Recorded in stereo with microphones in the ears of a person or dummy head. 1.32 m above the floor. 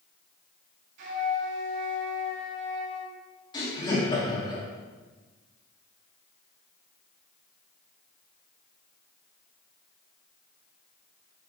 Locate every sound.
1.0 s a flute: 65° right (ahead or behind), 2.5 m
3.5 s laughter: 25° left (ahead or behind), 2 m